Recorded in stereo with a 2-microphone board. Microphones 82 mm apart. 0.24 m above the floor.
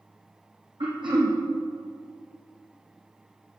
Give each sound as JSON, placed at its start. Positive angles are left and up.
{"t": 0.8, "sound": "throat clearing", "side_deg": -85, "distance_m": 2.5}